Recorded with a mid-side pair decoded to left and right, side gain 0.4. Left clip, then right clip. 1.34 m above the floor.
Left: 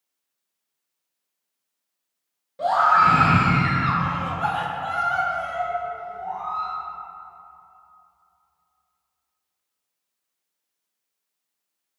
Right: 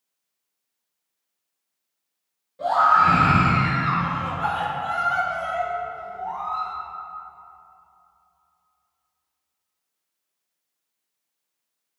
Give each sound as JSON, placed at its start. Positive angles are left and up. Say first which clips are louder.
{"t": 2.6, "sound": "a scream", "louder": "even", "azimuth_deg": 55, "distance_m": 1.6}